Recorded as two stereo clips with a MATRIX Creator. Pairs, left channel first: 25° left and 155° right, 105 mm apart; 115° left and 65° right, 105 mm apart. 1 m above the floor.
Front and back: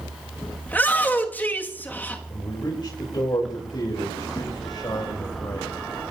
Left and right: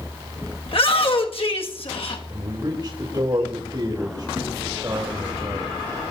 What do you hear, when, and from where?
0.7 s a shout: 95° left, 1.7 m
2.3 s a man speaking: 20° right, 3.5 m